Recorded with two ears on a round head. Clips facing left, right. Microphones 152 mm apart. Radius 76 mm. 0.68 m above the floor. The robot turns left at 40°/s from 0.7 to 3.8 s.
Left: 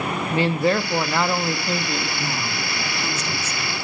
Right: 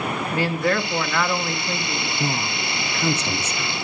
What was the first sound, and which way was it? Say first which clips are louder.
A man speaking: left 3 dB; 20° left (ahead or behind).